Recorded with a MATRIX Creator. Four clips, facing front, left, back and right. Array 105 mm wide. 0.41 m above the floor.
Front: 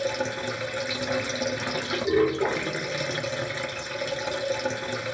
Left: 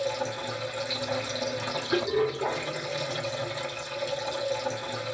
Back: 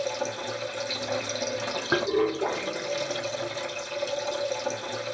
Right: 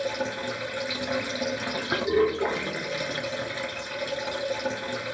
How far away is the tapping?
About 0.7 m.